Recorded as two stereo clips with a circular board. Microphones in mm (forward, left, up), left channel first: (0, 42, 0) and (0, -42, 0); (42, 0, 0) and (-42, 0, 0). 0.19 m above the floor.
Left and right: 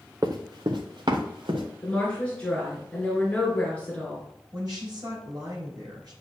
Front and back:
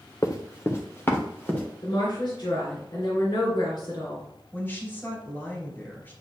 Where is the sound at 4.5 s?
60° right, 3.5 m.